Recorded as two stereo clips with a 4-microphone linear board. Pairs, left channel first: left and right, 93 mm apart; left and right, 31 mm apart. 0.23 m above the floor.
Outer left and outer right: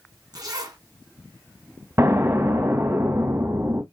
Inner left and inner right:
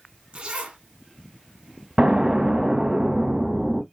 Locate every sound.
0.3 s a zipper: 45° right (ahead or behind), 1.4 m
2.0 s an explosion: 30° right (ahead or behind), 1.0 m